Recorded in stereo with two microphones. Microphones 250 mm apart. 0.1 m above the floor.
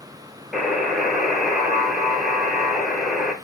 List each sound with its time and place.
0.5 s a buzzer: centre (ahead or behind), 1.0 m